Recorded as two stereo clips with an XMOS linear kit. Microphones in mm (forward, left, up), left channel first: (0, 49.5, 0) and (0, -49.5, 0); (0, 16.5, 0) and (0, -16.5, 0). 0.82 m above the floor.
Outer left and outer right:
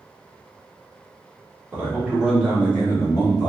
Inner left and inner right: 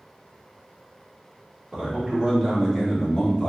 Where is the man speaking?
20° right (ahead or behind), 0.9 m; by 3.5 s 45° left (ahead or behind), 1.0 m.